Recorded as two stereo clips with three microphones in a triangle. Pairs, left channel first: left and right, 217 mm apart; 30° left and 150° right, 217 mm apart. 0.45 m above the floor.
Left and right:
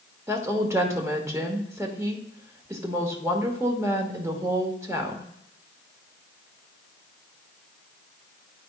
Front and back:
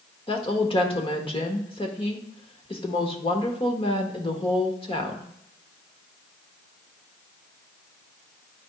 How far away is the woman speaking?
About 1.1 m.